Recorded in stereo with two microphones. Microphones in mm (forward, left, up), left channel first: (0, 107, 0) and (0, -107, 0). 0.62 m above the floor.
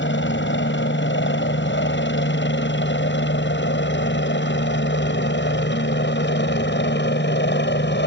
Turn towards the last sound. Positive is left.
turn(degrees=55)  # may be behind; listen again after turning